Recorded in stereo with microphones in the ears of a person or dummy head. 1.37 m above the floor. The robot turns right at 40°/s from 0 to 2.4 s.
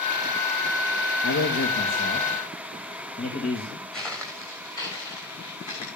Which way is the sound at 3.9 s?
5° left (ahead or behind).